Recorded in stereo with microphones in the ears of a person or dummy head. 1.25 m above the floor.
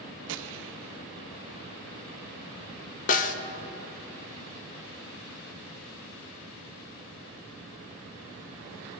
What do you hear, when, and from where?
0.3 s a gunshot: 65° right (ahead or behind), 0.5 m
3.1 s a snare drum: 40° left (ahead or behind), 0.6 m